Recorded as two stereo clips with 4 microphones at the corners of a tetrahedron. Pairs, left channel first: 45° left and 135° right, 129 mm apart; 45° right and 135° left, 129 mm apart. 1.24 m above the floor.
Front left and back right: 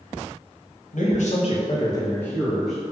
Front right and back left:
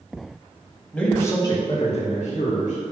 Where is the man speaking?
35° left, 1.9 m; by 2.8 s 50° right, 2.5 m.